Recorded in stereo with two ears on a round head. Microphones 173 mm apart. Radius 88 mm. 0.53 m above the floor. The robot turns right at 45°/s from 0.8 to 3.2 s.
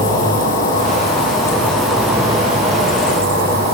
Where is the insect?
135° left, 8.5 m; by 3.7 s 120° right, 8.5 m.